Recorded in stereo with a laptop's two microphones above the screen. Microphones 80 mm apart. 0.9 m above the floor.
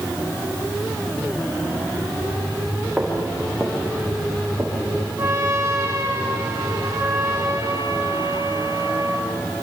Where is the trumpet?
35° right (ahead or behind), 3 m.